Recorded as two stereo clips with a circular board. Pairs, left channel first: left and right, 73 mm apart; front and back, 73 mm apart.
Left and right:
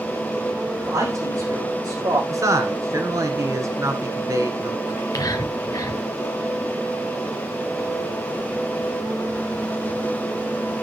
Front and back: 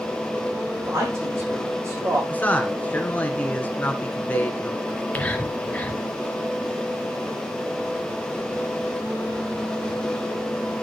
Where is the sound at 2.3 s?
65° right, 2 m.